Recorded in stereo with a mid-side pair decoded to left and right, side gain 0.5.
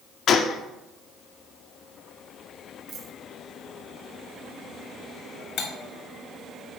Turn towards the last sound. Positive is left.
turn(degrees=70)